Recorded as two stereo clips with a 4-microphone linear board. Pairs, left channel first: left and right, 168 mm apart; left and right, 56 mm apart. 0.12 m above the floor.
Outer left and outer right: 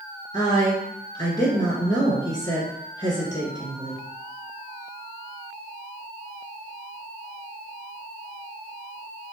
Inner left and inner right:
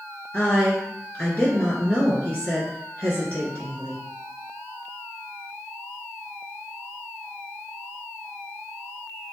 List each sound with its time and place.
0.3 s a woman speaking: 25° left (ahead or behind), 1.8 m